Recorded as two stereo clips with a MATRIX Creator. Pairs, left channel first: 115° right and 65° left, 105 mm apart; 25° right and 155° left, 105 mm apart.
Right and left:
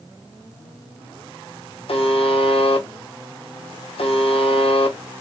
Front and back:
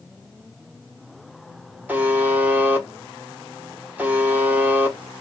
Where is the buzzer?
130° right, 0.9 m.